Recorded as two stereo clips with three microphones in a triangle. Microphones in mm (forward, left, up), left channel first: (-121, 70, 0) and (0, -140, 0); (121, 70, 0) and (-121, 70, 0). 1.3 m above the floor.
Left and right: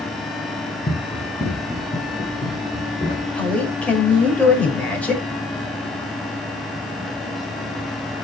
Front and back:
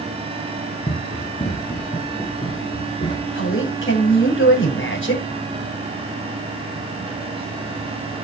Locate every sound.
0.9 s running footsteps: 60° left, 2.5 m
3.4 s a man speaking: 35° left, 5.5 m